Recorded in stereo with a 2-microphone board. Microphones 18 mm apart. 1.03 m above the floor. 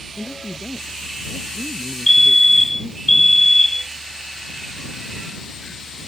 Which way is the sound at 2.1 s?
15° left (ahead or behind).